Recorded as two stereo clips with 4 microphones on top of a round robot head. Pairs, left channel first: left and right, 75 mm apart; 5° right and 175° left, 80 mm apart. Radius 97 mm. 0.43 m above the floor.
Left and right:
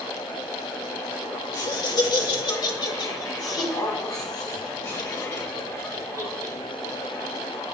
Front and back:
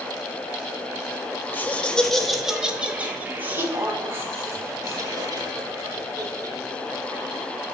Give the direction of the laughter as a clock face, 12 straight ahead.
10 o'clock.